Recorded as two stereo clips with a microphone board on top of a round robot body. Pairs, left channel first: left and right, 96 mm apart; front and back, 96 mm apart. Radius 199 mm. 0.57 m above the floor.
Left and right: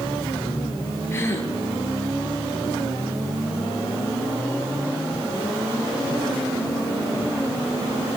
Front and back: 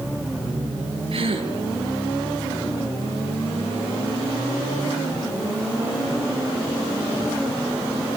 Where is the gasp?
160° left, 6.5 m.